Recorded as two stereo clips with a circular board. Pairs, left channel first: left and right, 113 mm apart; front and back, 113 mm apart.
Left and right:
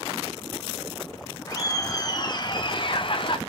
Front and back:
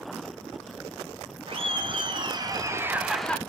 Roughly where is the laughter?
Behind left.